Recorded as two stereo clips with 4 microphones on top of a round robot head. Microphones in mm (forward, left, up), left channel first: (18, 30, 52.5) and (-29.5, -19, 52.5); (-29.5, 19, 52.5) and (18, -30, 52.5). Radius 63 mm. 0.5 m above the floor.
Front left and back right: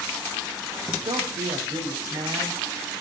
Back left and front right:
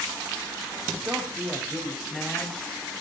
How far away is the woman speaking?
About 3 m.